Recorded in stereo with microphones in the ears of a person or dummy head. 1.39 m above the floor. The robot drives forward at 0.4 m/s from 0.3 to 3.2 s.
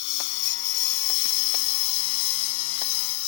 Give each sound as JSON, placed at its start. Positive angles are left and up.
{"t": 0.0, "sound": "a lawn mower", "side_deg": 60}